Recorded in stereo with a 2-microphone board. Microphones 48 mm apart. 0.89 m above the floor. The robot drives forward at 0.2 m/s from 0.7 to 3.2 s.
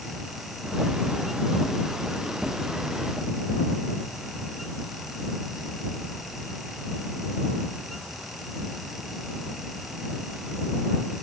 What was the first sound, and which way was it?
Only background noise.